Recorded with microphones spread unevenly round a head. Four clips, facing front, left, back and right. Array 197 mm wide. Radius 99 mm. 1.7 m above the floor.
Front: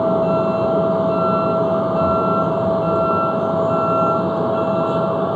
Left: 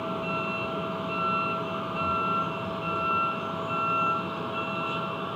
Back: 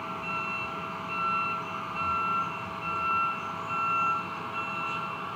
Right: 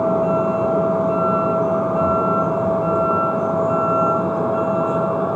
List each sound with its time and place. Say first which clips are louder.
0.0 s a vehicle: right 14 dB, front 19 dB; 35° right